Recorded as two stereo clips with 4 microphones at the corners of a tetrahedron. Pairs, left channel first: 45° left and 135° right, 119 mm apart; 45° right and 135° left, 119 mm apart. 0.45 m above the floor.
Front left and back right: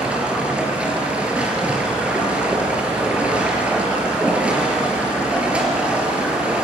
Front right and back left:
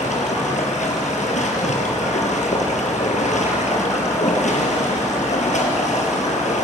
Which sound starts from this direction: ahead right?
Running water, at 0.0 s.